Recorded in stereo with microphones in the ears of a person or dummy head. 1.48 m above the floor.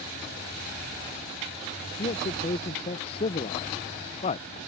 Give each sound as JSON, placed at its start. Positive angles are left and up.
{"t": 2.0, "sound": "a man speaking", "side_deg": 35}